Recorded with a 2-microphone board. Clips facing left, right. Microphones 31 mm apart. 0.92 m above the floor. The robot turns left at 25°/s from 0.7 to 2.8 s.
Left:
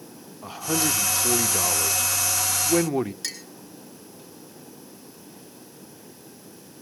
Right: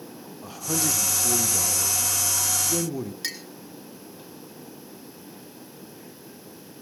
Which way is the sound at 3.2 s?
15° right (ahead or behind).